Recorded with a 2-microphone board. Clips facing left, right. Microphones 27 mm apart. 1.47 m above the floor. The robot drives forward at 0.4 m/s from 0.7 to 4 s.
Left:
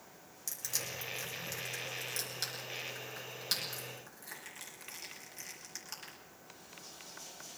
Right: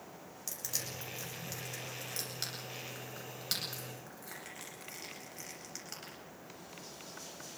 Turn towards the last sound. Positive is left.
turn(degrees=-5)  # may be behind; listen again after turning